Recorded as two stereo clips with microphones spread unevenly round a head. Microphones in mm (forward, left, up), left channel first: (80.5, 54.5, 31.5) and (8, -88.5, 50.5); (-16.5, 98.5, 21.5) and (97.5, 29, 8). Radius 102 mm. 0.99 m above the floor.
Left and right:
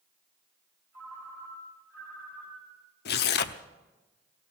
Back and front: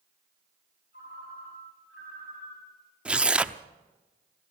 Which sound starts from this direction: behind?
A ringtone, at 0.9 s.